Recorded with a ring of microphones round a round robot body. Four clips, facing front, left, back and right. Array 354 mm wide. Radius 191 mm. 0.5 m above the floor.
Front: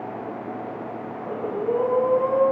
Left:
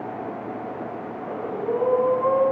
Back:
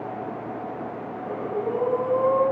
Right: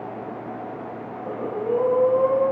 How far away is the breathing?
About 3 m.